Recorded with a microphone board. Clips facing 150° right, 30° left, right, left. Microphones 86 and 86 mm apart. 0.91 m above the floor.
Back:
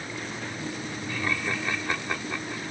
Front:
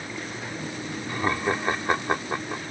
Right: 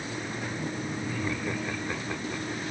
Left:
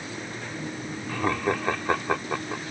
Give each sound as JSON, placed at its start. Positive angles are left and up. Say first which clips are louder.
{"t": 1.1, "sound": "laughter", "louder": "front 5 dB, left 10 dB", "azimuth_deg": 85}